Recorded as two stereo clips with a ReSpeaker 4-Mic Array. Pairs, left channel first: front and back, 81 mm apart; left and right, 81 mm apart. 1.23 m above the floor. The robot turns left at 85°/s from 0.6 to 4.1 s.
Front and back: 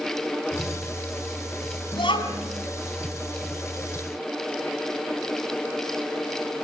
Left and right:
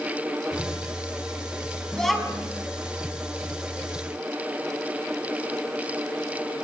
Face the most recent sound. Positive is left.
turn(degrees=-170)